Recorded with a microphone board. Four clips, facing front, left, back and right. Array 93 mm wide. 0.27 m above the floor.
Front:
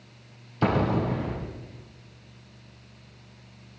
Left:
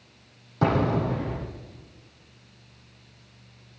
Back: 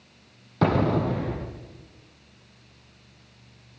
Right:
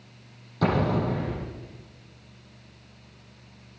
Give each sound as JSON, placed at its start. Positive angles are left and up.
{"t": 0.6, "sound": "an explosion", "azimuth_deg": 165, "distance_m": 6.5}